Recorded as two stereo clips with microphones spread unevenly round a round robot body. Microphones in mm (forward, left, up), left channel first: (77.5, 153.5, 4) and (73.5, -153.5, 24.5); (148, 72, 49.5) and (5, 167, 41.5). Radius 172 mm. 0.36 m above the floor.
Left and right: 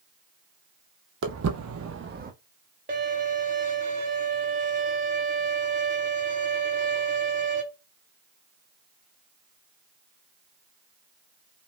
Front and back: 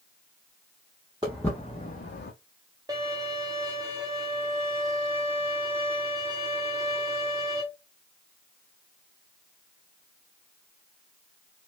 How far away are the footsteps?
About 0.6 m.